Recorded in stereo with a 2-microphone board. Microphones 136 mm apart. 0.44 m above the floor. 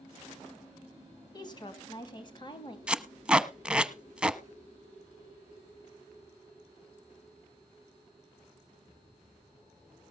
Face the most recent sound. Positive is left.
turn(degrees=-10)  # may be behind; listen again after turning